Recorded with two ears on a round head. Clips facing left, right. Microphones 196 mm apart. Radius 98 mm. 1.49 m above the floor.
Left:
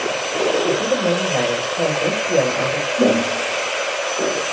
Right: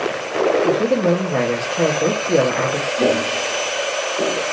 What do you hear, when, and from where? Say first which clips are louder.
0.6 s a man speaking: right 2 dB; 35° right (ahead or behind), 0.9 m
3.0 s footsteps: left 2 dB; 10° left (ahead or behind), 1.9 m; by 4.4 s 10° right (ahead or behind), 2 m